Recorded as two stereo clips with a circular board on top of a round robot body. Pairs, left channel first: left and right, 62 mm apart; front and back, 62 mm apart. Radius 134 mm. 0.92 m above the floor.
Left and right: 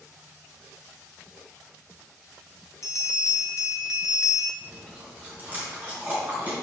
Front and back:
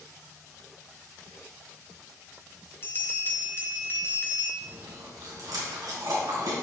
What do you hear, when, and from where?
2.8 s a bell: 55° left, 1.5 m
4.6 s chewing: 155° right, 3 m